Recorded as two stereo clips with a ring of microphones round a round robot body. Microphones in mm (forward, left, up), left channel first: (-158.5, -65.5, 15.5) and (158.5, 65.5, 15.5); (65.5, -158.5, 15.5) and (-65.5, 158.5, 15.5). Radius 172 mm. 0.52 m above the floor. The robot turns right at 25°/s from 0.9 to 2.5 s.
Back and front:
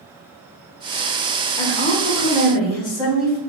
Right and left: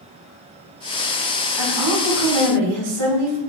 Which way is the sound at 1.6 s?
125° left.